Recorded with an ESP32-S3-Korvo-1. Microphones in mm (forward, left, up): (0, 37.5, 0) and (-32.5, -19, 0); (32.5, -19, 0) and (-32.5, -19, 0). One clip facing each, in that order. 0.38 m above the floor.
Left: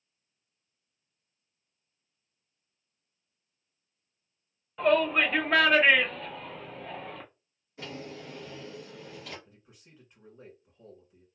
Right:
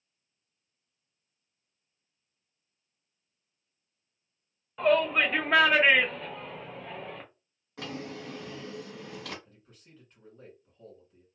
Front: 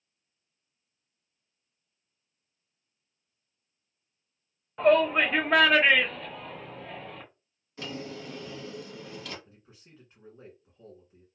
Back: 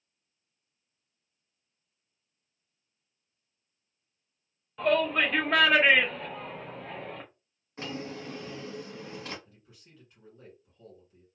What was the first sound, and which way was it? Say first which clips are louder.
A shout: even, front 4 dB; 35° right.